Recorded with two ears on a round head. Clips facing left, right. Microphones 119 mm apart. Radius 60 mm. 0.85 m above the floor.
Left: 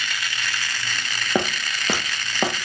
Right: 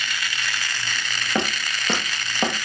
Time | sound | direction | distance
1.4 | footsteps | 15° left (ahead or behind) | 1.1 m